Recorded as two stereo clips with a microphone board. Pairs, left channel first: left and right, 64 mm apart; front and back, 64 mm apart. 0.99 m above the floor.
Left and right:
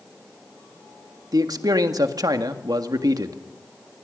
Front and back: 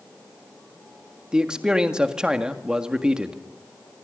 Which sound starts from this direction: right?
A man speaking, at 1.3 s.